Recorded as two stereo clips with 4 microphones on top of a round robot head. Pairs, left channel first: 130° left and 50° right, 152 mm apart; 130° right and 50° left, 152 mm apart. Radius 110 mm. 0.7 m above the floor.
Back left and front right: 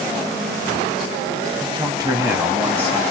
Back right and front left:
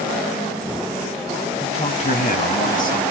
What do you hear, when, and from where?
1.6 s a man speaking: 90° right, 1.5 m; by 3.0 s 135° right, 2 m